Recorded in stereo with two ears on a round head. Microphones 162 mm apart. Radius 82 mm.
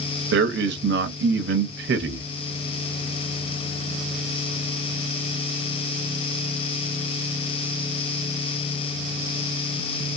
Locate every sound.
0.3 s a man speaking: 65° right (ahead or behind), 0.8 m